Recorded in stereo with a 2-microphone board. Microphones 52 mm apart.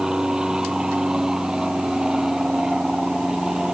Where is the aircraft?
10° right (ahead or behind).